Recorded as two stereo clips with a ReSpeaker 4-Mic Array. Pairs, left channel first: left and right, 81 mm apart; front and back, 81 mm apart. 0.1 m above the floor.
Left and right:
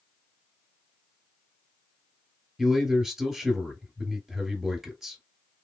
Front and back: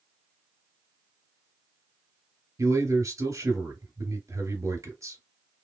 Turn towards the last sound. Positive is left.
turn(degrees=-175)